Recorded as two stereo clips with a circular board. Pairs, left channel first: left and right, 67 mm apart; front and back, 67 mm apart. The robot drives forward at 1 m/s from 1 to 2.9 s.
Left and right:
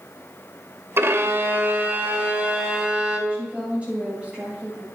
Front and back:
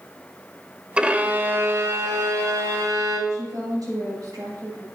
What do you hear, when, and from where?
1.0 s a violin: 110° right, 1.1 m; by 3.2 s 160° right, 2.5 m
3.3 s a woman speaking: 160° right, 7.5 m